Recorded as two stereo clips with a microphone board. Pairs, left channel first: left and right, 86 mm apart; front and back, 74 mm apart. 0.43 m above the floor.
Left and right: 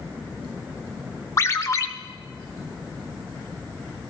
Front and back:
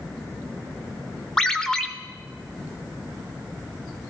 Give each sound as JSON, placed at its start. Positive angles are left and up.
{"t": 1.4, "sound": "a ringtone", "azimuth_deg": 75, "distance_m": 0.8}